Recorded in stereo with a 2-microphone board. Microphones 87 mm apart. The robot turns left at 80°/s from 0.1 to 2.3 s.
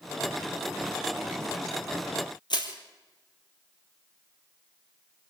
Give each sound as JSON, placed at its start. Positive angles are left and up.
{"t": 2.5, "sound": "crushing", "side_deg": 60, "distance_m": 3.5}